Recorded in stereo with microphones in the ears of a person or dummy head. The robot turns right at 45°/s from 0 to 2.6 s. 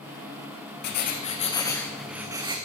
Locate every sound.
0.8 s writing: 125° left, 1.4 m; by 2.6 s 155° right, 1.4 m